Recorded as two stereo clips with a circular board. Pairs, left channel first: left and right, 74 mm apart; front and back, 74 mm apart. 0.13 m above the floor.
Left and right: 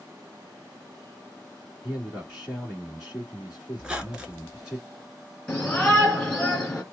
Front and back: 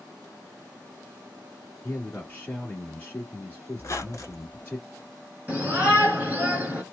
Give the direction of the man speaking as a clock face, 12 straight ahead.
1 o'clock.